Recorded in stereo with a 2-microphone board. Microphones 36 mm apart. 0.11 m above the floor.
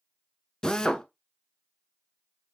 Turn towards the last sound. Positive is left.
turn(degrees=25)  # may be behind; listen again after turning